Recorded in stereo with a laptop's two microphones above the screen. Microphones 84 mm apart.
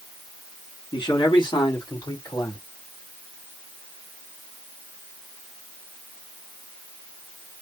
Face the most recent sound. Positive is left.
turn(degrees=60)  # may be behind; listen again after turning